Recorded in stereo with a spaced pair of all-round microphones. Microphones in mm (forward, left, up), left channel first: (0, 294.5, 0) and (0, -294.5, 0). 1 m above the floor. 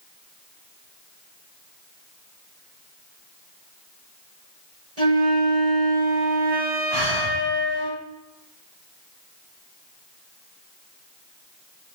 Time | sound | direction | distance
5.0 | a flute | 80° right | 5.5 m
6.9 | breathing | 75° right (ahead or behind) | 3 m